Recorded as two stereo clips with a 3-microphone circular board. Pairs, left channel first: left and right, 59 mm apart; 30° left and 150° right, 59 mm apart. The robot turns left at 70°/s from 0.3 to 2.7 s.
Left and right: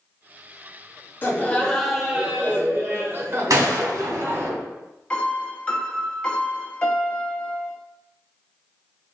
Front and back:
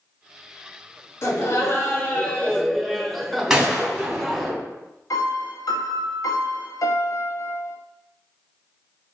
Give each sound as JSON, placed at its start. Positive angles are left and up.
{"t": 1.2, "sound": "laughter", "azimuth_deg": 50, "distance_m": 1.2}
{"t": 3.5, "sound": "a gunshot", "azimuth_deg": -70, "distance_m": 1.3}
{"t": 5.1, "sound": "a piano", "azimuth_deg": 20, "distance_m": 0.7}